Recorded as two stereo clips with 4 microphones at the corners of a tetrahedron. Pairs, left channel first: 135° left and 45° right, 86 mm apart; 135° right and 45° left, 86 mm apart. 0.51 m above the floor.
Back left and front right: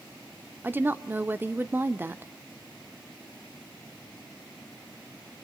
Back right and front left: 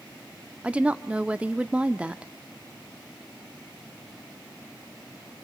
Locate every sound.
0.6 s a woman speaking: 15° right, 0.7 m